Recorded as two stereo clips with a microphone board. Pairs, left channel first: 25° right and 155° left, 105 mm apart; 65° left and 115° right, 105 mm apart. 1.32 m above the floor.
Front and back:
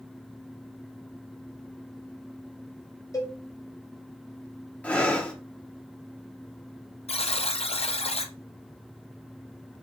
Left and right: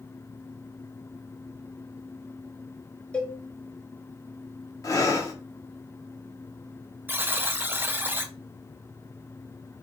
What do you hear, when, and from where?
3.1 s a cowbell: straight ahead, 0.8 m
4.8 s breathing: 45° left, 0.9 m
7.1 s a buzzer: 40° right, 0.5 m